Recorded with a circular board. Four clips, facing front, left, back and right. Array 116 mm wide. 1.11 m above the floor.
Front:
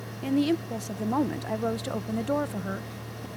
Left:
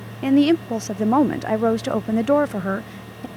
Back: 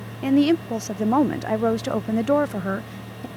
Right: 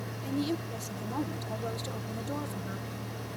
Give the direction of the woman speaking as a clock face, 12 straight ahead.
8 o'clock.